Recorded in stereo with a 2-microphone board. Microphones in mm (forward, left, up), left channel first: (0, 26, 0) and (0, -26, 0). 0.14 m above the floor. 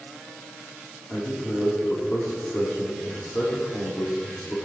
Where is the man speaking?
40° left (ahead or behind), 6 m.